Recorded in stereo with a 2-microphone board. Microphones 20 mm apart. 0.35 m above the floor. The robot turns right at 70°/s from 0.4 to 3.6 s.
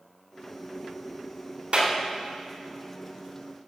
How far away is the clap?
About 2.5 m.